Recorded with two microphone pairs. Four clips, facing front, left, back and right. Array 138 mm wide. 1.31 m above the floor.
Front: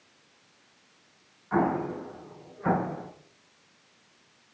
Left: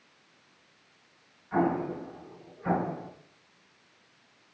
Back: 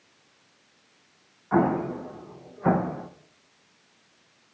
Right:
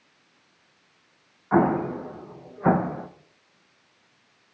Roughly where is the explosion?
Right.